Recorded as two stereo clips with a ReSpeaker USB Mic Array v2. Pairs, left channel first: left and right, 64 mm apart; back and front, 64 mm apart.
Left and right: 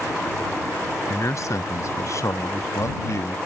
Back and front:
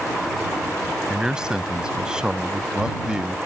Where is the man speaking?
75° left.